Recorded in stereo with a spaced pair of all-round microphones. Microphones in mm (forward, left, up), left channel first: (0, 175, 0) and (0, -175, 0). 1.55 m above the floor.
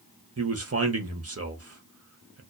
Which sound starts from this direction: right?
A man speaking, at 0.4 s.